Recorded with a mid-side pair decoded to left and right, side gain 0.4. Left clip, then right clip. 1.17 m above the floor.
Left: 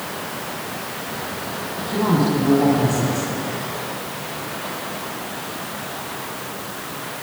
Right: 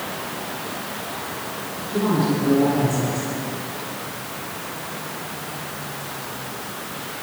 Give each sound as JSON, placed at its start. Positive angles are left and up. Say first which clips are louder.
{"t": 1.9, "sound": "a woman speaking", "louder": "left 2 dB", "azimuth_deg": 50, "distance_m": 9.0}